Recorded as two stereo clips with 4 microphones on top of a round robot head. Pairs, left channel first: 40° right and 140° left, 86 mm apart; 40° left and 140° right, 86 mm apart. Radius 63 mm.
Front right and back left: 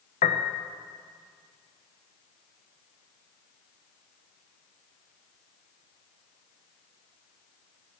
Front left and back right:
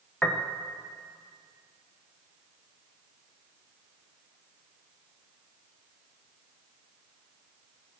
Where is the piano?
45° right, 0.7 m.